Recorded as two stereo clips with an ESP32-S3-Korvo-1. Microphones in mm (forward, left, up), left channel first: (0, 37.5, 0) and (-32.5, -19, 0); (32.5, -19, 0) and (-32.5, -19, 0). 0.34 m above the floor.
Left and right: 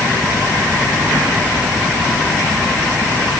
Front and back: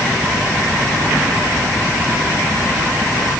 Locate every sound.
Only background noise.